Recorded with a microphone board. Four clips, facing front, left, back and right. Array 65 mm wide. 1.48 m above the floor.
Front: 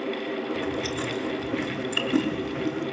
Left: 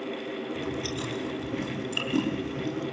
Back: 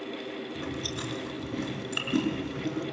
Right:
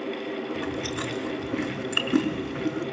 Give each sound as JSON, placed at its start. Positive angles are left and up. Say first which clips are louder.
{"t": 0.6, "sound": "chewing", "louder": "right 2 dB, front 7 dB", "azimuth_deg": -80, "distance_m": 5.0}